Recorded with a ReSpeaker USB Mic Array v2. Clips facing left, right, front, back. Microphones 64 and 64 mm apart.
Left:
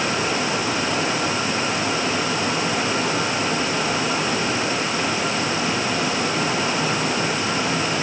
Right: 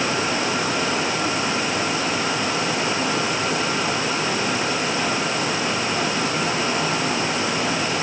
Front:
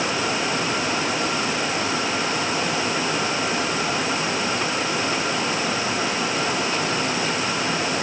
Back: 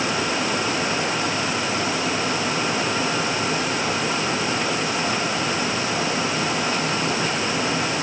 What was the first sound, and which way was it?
Only background noise.